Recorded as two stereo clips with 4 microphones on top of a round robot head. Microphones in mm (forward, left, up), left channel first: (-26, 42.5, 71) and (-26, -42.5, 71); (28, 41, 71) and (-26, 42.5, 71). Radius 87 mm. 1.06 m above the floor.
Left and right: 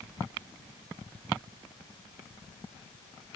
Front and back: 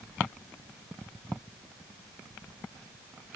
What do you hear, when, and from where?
Only background noise.